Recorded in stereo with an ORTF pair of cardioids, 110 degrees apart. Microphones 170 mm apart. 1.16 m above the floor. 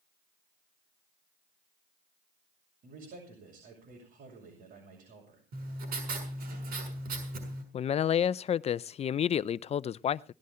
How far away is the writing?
About 6.5 m.